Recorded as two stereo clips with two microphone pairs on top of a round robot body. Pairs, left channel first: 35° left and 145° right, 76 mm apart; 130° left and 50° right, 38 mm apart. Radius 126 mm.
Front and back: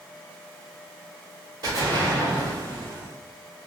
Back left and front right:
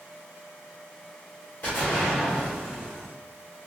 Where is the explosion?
170° left, 1.7 m.